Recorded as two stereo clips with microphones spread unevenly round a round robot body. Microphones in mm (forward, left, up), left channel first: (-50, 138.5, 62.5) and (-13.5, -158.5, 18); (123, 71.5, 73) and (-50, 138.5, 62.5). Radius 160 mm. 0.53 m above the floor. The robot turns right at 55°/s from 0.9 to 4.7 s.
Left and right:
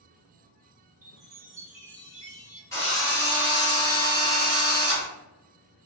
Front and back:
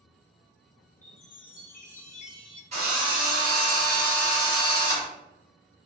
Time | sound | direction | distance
1.0 | a chime | 45° right | 0.9 m
2.7 | a drill | straight behind | 1.7 m